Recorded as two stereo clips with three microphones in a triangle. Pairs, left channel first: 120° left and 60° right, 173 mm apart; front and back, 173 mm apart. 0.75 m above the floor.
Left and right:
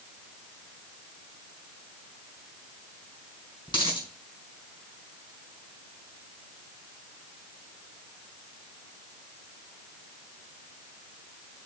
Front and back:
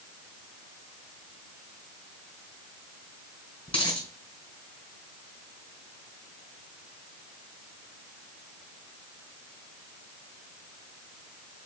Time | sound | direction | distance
3.7 | a dropped coin | 60° left | 3 m